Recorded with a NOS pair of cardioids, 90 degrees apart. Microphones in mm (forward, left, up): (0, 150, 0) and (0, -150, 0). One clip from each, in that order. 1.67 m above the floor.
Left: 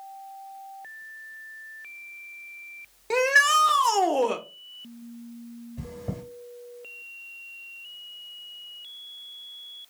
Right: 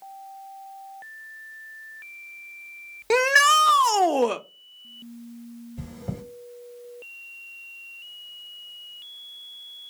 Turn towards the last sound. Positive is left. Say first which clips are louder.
# left 1 dB
turn(degrees=-10)